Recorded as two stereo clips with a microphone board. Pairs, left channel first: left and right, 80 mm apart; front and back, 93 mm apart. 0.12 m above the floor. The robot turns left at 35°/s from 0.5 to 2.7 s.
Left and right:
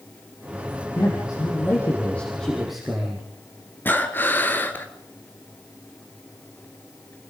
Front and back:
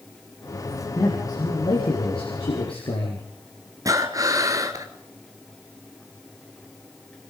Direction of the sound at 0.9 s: 60° left.